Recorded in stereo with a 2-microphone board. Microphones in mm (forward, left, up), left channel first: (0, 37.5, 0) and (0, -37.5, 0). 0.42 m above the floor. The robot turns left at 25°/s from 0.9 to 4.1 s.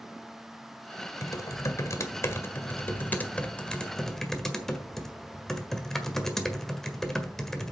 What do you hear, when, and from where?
1.2 s typing on a keyboard: 80° left, 1.5 m; by 7.7 s 5° left, 1.5 m